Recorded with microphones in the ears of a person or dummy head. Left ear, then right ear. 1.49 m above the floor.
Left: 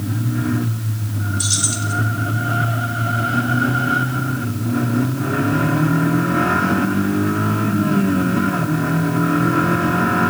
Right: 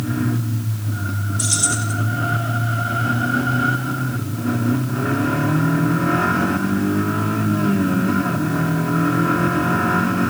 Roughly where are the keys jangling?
Right.